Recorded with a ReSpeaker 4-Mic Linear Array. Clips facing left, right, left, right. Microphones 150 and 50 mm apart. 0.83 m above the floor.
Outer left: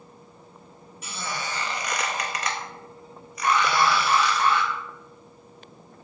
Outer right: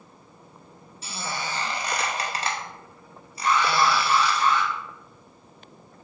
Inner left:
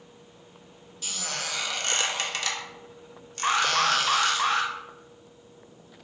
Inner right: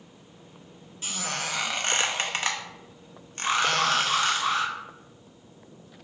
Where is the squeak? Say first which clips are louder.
Outer right 1 dB, inner right 2 dB; 30° right (ahead or behind), 0.5 m.